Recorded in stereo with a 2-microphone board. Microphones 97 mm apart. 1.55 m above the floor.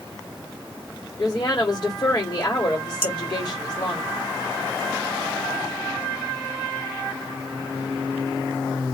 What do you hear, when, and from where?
1.2 s a woman speaking: 35° left (ahead or behind), 2 m
3.0 s dishes clattering: 60° left (ahead or behind), 2 m